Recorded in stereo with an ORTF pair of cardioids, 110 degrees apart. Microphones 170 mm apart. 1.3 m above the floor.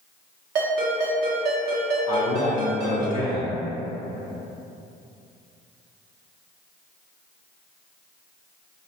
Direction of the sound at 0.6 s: 70° right.